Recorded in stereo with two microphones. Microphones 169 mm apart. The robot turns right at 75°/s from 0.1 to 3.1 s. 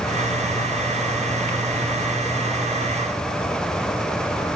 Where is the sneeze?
No sneeze in this recording.